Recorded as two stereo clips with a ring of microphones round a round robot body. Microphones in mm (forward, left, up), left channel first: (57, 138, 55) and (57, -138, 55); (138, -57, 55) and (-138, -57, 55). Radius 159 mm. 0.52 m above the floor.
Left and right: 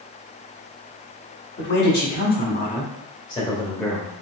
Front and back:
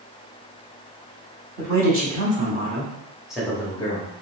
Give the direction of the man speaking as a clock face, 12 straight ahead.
8 o'clock.